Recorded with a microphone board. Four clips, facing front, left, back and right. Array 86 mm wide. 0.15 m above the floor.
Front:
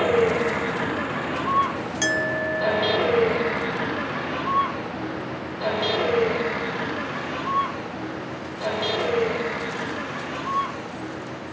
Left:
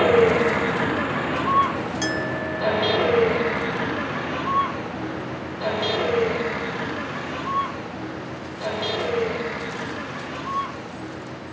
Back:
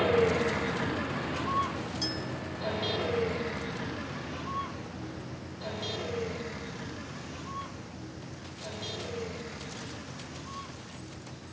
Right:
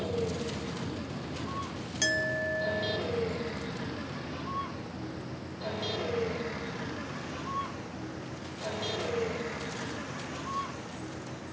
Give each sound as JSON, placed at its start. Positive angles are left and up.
{"t": 0.0, "sound": "a vehicle", "azimuth_deg": 70}
{"t": 2.0, "sound": "a clink", "azimuth_deg": 5}